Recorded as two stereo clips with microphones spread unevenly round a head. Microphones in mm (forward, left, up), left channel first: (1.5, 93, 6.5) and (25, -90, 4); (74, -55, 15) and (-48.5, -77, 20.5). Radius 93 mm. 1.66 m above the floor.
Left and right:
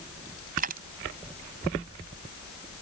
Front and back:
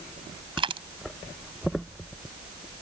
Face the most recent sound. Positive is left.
turn(degrees=-130)